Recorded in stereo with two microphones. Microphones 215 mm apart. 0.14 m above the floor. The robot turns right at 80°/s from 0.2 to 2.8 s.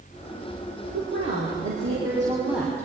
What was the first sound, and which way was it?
A woman speaking, 135° right.